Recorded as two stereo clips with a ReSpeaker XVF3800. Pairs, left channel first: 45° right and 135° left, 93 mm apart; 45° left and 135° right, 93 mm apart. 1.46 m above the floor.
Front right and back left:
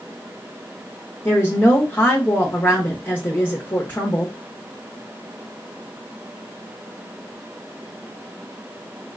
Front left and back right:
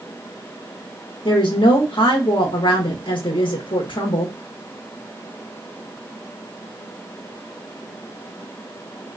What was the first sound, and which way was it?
A woman speaking, 20° left.